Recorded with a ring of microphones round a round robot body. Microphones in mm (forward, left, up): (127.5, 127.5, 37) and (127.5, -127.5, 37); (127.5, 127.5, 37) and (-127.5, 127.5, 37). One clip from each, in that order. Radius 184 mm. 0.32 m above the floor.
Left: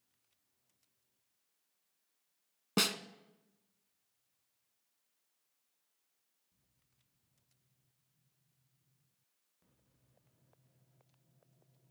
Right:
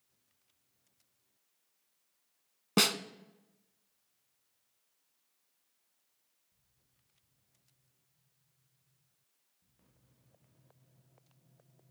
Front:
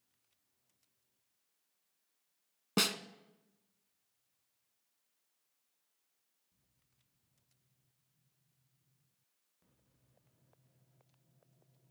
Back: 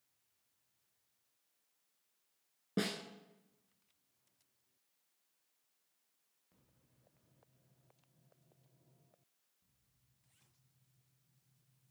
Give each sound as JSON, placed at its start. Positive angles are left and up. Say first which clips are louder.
{"t": 2.8, "sound": "a snare drum", "louder": "right 4 dB, front 6 dB", "azimuth_deg": -5, "distance_m": 0.8}